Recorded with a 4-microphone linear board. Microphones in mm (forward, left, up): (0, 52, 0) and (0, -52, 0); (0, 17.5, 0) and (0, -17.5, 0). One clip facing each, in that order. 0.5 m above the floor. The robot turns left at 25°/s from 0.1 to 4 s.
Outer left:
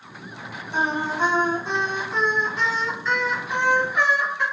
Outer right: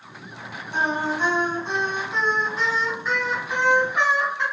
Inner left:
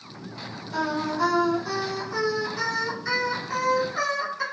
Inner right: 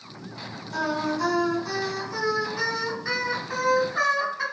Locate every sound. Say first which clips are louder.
0.7 s singing: even, even; 40° left, 1.9 m; by 4.4 s 40° right, 1.9 m